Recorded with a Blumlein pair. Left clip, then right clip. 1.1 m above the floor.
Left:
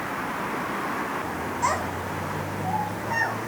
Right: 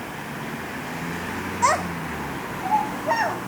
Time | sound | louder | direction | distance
1.6 | a child speaking | right 5 dB | 15° right | 1.1 m